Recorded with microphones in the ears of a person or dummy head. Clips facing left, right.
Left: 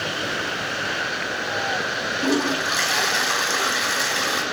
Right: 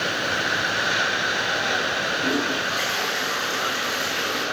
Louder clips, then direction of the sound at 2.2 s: Left 5 dB; 75° left (ahead or behind).